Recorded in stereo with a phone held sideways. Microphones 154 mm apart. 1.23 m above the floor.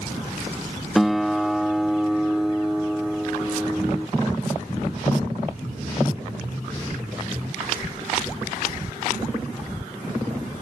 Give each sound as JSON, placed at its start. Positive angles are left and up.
{"t": 0.9, "sound": "a guitar", "side_deg": 0}